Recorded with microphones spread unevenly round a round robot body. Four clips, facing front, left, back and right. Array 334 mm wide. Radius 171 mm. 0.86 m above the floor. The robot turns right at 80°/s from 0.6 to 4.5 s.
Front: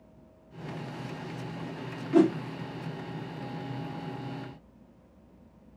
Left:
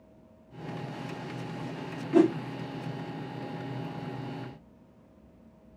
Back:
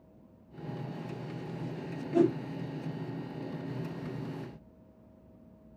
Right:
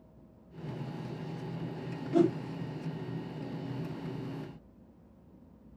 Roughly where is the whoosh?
Ahead left.